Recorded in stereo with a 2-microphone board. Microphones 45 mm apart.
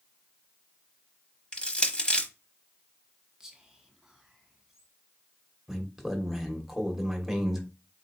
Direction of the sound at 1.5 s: 25° left (ahead or behind).